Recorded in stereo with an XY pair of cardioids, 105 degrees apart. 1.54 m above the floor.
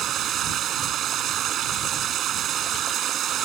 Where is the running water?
65° right.